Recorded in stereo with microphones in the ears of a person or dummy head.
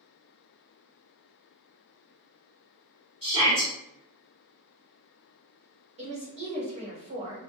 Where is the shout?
35° left (ahead or behind), 1.1 m.